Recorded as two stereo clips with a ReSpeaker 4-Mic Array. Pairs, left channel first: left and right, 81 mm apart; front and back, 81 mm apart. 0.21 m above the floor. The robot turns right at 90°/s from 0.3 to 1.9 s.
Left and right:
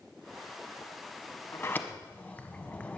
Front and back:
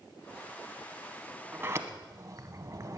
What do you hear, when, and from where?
1.5 s a sliding door: 120° left, 0.8 m; by 3.0 s 155° left, 0.8 m